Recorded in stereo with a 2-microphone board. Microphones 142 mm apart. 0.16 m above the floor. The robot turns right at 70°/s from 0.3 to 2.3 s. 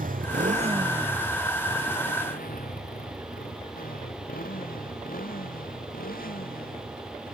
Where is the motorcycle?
70° right (ahead or behind); by 7.3 s 75° left (ahead or behind).